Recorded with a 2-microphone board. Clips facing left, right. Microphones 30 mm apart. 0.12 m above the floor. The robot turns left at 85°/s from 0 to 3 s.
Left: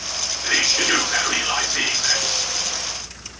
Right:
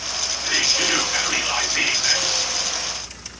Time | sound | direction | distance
0.4 | whispering | 135° left | 1.9 m